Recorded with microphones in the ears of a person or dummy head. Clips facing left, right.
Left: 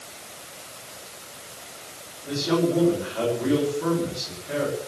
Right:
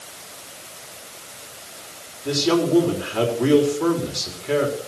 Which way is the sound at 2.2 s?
85° right.